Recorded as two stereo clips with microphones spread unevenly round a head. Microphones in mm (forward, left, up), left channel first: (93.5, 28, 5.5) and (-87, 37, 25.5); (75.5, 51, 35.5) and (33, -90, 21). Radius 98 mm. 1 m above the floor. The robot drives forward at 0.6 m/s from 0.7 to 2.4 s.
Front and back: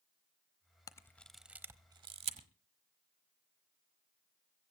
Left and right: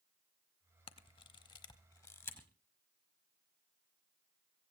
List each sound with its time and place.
0.9 s a camera shutter: 65° left, 0.9 m; by 2.5 s 145° left, 1.1 m